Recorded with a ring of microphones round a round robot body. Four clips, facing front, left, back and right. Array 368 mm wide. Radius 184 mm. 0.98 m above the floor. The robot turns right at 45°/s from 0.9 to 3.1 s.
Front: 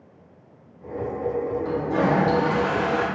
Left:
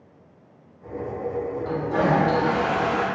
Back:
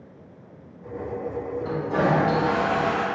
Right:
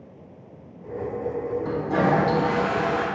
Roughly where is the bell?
I don't hear a bell.